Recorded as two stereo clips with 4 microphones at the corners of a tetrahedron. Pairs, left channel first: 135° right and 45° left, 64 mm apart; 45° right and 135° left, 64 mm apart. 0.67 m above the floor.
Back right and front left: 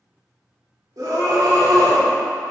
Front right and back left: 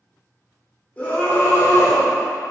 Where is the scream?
20° left, 1.8 m; by 2.1 s 5° left, 3 m.